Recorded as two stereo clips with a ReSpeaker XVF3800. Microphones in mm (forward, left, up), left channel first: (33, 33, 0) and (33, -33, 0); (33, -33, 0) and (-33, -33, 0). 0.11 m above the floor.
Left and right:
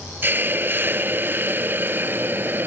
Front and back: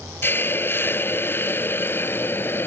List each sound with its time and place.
0.2 s a hiss: 45° right